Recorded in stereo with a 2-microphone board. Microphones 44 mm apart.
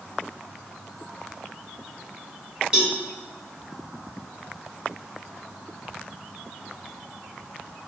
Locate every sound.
2.7 s a cowbell: 20° right (ahead or behind), 1.2 m